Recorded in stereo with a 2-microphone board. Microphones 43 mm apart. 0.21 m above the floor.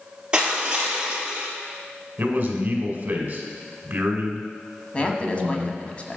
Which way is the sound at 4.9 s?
30° left (ahead or behind).